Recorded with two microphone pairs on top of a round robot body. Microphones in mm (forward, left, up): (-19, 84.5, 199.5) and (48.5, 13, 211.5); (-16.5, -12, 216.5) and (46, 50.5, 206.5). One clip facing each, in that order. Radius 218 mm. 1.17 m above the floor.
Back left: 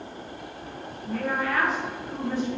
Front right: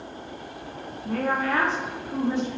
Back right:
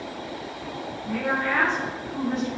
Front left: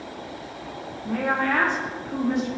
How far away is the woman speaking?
About 0.5 m.